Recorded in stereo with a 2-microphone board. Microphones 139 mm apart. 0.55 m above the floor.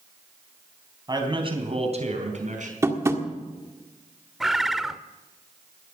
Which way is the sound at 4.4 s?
Centre (ahead or behind).